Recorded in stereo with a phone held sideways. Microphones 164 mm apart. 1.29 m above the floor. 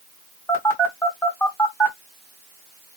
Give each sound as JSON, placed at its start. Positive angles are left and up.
{"t": 0.5, "sound": "a phone buzzing", "side_deg": 15, "distance_m": 1.4}